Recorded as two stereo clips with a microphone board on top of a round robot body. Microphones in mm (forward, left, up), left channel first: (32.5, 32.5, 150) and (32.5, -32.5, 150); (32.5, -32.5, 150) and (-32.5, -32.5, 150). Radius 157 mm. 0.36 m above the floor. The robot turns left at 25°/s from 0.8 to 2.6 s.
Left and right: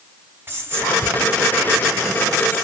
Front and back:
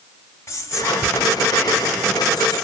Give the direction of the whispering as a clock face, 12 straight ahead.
1 o'clock.